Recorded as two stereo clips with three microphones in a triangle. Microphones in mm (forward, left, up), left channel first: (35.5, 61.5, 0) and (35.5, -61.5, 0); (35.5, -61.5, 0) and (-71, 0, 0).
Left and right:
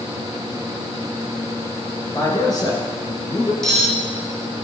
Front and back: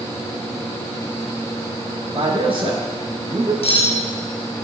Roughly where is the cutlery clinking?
Ahead.